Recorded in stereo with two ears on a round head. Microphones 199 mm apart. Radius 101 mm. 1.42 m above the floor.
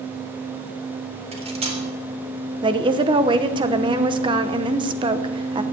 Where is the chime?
No chime in this recording.